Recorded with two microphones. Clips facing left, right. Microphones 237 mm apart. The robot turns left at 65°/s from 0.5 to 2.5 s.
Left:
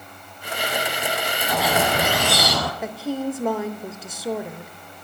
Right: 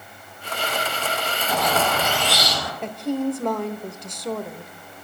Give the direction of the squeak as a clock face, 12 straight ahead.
6 o'clock.